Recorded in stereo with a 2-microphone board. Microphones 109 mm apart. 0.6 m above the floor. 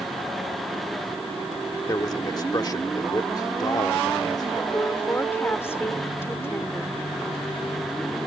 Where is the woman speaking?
20° left (ahead or behind).